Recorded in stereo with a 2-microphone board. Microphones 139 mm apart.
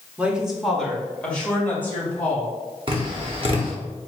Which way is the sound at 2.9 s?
40° right (ahead or behind).